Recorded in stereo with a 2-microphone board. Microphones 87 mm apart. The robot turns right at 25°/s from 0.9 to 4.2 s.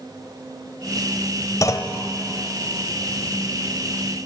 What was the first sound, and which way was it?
A clunk, 40° left (ahead or behind).